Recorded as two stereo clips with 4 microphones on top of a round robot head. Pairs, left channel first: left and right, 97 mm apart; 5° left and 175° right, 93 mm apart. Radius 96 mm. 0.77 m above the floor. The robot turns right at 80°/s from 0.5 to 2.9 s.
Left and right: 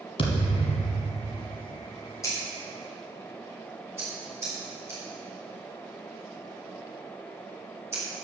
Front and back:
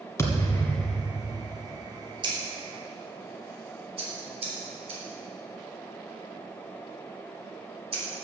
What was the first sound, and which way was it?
A thud, 65° left.